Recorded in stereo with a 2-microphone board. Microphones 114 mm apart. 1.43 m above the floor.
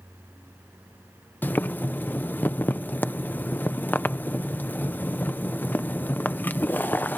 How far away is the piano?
I don't hear a piano.